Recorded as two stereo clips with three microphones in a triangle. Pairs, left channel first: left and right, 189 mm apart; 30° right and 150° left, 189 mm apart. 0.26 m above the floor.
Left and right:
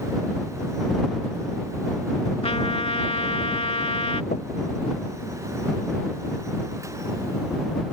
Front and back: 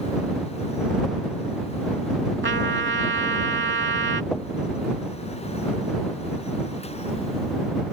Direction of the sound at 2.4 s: 145° left.